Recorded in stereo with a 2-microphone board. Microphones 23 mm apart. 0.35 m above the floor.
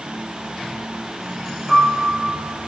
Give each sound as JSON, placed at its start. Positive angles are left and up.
{"t": 1.7, "sound": "a piano", "side_deg": 10, "distance_m": 1.1}